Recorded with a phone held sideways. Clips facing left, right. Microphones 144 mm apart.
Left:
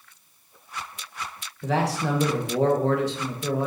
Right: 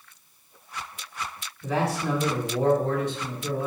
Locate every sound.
1.6 s a man speaking: 80° left, 1.8 m